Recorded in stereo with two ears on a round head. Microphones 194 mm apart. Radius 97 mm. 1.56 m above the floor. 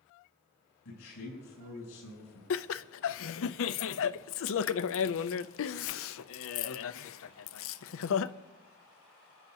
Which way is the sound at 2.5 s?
65° left (ahead or behind).